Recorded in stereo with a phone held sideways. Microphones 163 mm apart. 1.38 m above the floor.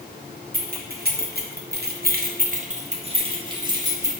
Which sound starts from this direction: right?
Keys jangling, at 0.5 s.